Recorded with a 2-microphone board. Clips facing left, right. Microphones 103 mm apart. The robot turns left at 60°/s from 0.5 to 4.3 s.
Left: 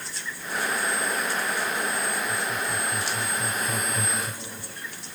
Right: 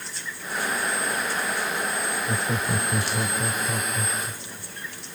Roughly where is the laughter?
Right.